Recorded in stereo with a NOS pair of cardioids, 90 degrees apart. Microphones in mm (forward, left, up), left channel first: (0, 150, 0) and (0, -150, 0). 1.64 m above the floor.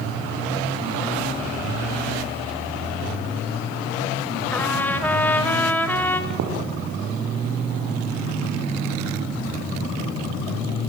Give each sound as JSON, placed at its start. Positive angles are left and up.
{"t": 4.5, "sound": "a trumpet", "azimuth_deg": 5, "distance_m": 5.5}
{"t": 6.3, "sound": "footsteps", "azimuth_deg": -70, "distance_m": 7.0}